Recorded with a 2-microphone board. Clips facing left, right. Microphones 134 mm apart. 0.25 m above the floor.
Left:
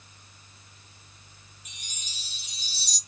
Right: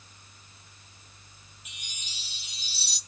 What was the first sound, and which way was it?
A chime, 35° left (ahead or behind).